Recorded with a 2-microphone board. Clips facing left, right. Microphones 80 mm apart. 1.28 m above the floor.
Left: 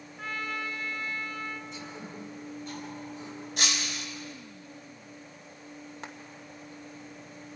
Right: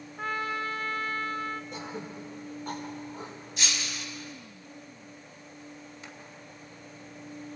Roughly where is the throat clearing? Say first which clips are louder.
Right 3 dB; right.